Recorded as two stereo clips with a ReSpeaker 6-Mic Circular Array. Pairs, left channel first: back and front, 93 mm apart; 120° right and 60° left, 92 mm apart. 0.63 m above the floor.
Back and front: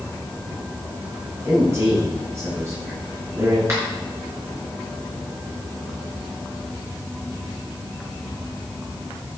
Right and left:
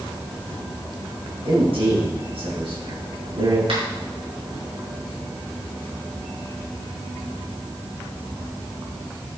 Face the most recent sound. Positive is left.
turn(degrees=60)